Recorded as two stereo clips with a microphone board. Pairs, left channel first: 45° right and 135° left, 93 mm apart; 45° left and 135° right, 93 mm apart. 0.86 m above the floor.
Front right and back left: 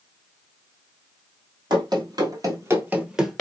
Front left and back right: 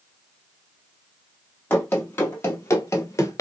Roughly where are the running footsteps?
Behind left.